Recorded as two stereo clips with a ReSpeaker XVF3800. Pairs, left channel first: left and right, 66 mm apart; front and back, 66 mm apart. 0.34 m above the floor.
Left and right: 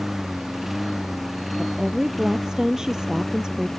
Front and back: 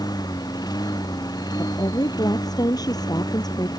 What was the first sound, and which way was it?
A lawn mower, 5° right.